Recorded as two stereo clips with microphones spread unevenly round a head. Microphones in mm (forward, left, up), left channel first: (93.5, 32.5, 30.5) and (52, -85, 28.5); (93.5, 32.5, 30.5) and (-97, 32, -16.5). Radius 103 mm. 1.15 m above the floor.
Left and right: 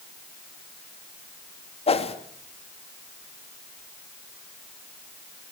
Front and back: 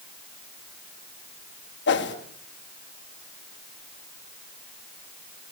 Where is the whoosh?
30° left, 2.5 m.